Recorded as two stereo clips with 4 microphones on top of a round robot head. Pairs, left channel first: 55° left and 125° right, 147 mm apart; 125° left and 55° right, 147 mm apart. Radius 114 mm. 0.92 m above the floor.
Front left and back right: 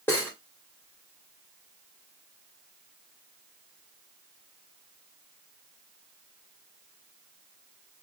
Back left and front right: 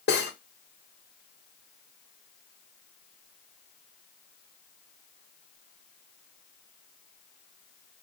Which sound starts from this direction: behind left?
Cutlery clinking, at 0.1 s.